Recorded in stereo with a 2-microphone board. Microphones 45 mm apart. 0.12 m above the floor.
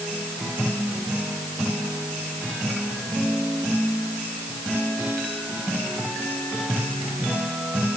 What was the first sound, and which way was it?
Only background noise.